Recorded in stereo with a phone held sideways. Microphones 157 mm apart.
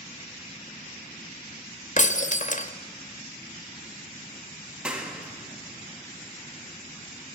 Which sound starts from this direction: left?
Breaking glass, at 2.0 s.